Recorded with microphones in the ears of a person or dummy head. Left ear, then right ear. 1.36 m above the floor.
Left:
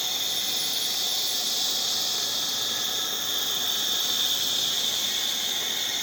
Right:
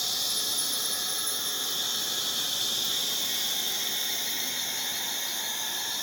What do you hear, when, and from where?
0.0 s an insect: centre (ahead or behind), 1.9 m